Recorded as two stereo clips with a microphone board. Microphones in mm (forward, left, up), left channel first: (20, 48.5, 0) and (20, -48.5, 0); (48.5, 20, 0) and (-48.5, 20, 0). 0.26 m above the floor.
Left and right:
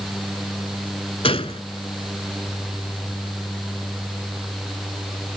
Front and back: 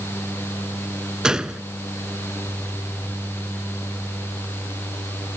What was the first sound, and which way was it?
A gunshot, 100° left.